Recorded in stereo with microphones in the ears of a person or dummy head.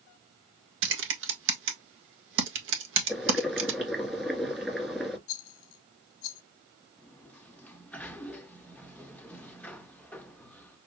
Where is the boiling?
5° right (ahead or behind), 1.8 m.